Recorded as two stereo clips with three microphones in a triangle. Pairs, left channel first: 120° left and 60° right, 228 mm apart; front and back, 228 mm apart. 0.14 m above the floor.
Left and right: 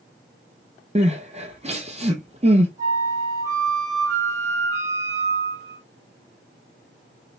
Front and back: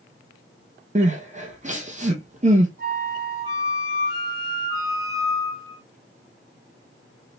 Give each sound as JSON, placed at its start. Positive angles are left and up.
{"t": 0.9, "sound": "crying", "azimuth_deg": -125, "distance_m": 1.0}
{"t": 2.8, "sound": "a flute", "azimuth_deg": 15, "distance_m": 2.0}